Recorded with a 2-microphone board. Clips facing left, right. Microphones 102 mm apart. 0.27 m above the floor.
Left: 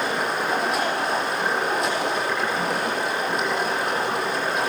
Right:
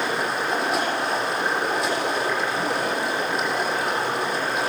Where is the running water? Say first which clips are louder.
Even; 5° right (ahead or behind), 7.5 m.